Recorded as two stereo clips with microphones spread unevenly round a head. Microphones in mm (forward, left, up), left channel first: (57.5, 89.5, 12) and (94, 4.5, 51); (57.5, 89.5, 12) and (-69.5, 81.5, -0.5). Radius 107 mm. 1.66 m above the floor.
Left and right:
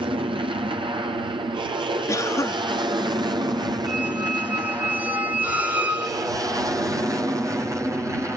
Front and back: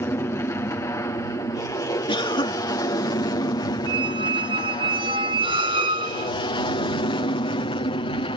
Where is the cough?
50° left.